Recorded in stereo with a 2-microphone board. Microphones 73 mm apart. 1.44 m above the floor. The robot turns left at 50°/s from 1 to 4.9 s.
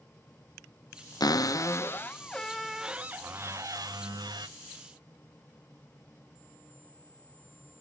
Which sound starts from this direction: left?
A cupboard door, at 1.2 s.